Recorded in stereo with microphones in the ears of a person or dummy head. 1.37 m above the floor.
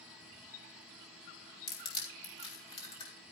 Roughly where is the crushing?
Left.